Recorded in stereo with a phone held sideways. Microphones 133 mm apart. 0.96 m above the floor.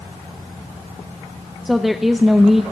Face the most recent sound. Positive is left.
turn(degrees=0)  # may be behind; listen again after turning